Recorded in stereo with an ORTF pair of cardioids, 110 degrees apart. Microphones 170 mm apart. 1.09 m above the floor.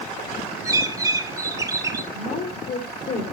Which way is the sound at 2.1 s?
50° left.